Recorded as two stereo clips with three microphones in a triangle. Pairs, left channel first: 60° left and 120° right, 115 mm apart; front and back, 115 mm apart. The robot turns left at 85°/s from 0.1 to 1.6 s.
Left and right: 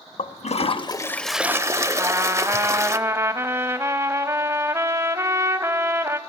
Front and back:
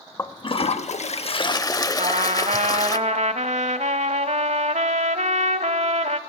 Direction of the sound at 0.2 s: 65° left.